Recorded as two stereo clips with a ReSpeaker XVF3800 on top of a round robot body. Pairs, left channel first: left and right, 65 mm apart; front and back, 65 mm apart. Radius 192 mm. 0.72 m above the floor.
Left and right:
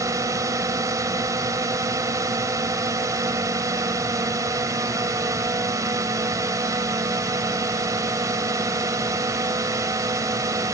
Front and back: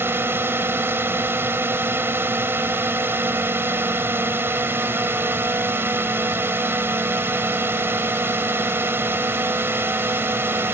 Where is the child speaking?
I don't hear a child speaking.